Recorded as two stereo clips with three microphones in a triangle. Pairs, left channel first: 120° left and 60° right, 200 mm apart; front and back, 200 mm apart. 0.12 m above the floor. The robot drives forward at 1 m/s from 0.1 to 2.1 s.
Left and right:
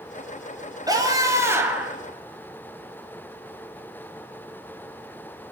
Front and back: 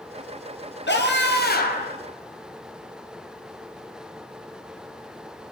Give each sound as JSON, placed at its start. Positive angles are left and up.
{"t": 0.9, "sound": "a scream", "azimuth_deg": 10, "distance_m": 2.5}